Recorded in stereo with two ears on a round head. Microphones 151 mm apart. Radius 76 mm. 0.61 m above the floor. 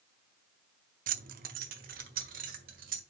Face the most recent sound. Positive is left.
turn(degrees=-50)  # may be behind; listen again after turning